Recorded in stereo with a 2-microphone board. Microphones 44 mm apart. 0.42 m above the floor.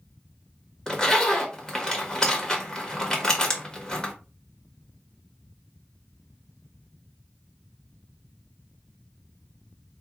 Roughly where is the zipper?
Centre.